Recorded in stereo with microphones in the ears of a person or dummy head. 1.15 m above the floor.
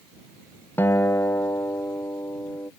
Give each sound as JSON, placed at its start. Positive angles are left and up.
{"t": 0.8, "sound": "a guitar", "side_deg": 10}